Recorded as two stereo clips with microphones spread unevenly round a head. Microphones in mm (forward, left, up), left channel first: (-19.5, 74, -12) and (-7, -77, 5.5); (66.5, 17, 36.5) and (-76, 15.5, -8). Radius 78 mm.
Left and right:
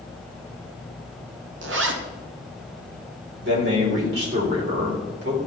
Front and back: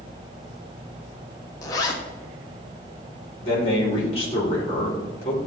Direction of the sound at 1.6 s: 70° right.